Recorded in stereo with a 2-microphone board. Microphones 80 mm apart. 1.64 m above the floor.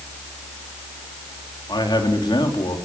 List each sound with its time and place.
1.7 s a man speaking: 65° left (ahead or behind), 4 m